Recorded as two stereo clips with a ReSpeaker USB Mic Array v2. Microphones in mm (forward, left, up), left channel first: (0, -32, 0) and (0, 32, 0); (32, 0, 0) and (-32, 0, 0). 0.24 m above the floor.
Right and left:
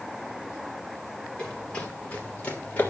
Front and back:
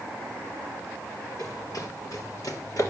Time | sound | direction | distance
1.4 | running footsteps | 15° right | 3.5 m